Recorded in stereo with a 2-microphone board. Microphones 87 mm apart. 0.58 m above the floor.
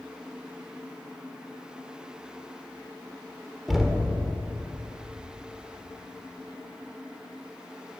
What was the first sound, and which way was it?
Knocking, centre (ahead or behind).